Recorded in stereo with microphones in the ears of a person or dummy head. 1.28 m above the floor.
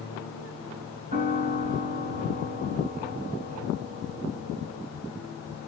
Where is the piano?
40° right (ahead or behind), 1.9 m.